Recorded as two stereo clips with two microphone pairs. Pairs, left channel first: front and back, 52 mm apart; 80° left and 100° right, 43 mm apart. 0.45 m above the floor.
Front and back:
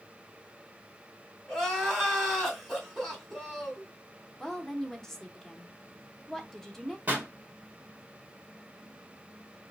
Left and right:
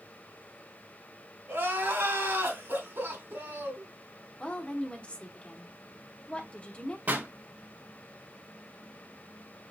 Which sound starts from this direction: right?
Crying, at 1.5 s.